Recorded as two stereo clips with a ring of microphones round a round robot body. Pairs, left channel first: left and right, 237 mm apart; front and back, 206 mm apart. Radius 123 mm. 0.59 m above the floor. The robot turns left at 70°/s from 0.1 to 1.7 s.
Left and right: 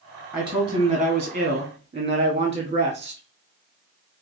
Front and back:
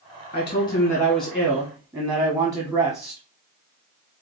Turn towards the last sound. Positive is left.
turn(degrees=-120)